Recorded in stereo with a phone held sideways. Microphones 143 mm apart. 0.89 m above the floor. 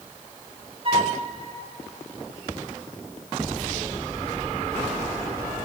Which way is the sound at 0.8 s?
40° right (ahead or behind).